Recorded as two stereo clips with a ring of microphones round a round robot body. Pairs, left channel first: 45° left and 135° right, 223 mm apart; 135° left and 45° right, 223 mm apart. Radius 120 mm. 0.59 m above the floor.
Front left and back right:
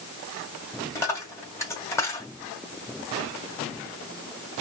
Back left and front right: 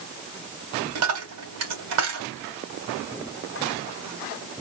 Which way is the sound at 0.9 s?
35° right.